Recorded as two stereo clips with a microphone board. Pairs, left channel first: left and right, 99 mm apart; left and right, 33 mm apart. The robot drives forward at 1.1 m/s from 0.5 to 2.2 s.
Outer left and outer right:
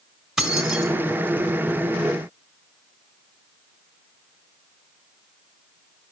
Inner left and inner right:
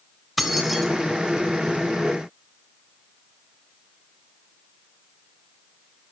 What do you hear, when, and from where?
0.4 s keys jangling: 5° right (ahead or behind), 3.5 m